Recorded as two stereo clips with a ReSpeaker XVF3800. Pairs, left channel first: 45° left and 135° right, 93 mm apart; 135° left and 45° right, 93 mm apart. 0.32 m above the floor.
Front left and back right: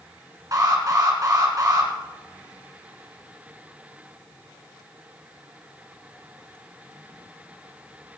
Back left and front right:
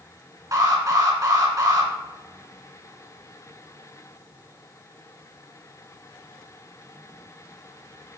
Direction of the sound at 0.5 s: 90° right.